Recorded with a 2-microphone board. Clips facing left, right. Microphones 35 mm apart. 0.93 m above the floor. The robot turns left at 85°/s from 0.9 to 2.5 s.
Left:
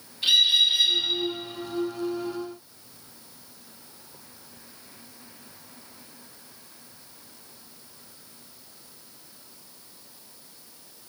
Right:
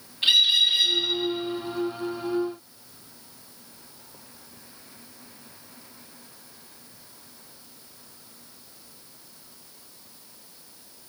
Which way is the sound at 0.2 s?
40° right (ahead or behind).